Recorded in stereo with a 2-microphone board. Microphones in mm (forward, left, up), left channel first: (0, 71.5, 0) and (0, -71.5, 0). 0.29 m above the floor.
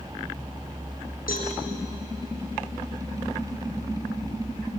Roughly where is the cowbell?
Left.